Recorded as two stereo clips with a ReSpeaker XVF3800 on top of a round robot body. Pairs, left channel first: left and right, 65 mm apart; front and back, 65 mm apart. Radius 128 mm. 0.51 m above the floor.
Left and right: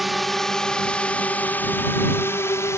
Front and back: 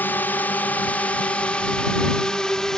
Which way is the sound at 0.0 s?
Straight ahead.